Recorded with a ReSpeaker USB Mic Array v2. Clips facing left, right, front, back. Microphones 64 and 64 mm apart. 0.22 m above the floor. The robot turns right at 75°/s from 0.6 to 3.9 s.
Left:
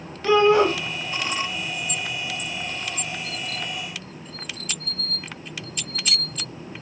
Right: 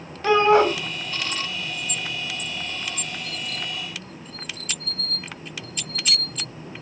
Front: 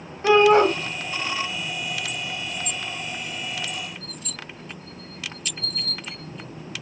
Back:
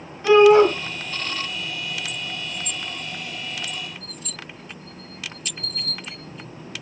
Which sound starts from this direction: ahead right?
A shout, at 0.2 s.